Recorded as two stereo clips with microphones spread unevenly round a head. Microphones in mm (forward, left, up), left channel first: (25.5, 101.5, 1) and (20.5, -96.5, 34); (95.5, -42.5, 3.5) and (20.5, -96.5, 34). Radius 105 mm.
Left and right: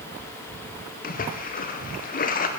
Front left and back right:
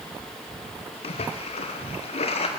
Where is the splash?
40° left, 1.1 m.